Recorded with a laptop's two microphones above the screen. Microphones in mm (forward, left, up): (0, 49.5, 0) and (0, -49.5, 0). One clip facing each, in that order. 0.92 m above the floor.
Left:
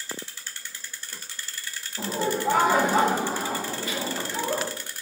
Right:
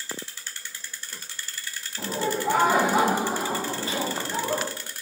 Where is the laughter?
10° left (ahead or behind), 1.3 m; by 4.7 s 40° right (ahead or behind), 1.0 m.